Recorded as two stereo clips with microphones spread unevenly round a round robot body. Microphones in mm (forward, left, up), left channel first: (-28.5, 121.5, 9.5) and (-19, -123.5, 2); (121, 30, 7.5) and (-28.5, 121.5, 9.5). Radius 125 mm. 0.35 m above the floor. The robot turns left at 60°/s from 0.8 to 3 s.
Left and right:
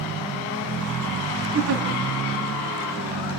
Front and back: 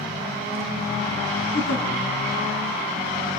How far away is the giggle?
About 3 m.